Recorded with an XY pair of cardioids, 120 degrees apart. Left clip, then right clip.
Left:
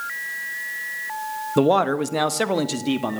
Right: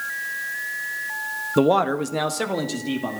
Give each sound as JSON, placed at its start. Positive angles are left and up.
{"t": 1.6, "sound": "a man speaking", "azimuth_deg": 5, "distance_m": 0.9}